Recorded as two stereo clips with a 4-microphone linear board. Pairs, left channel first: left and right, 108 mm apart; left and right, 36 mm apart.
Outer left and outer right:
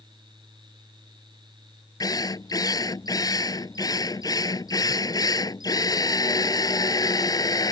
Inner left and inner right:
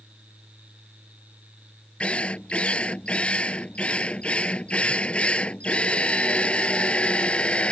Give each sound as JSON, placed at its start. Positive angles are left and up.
{"t": 2.0, "sound": "a drill", "side_deg": 35}